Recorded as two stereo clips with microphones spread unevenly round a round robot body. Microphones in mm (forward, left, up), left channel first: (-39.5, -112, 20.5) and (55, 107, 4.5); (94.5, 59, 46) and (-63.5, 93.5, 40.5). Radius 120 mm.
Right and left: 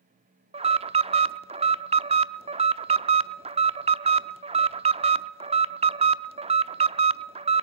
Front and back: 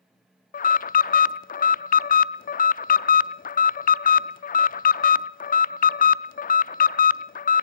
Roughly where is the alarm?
Ahead.